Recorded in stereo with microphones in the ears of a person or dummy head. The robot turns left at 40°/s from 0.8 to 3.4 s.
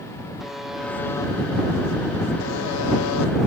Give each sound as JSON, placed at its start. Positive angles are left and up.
{"t": 0.4, "sound": "a buzzer", "azimuth_deg": -175}